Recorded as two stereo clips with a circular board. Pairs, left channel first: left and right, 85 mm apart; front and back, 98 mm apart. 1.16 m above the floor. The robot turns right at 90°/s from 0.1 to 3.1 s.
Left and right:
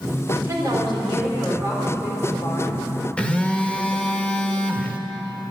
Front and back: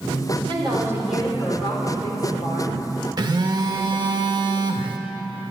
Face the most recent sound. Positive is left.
turn(degrees=160)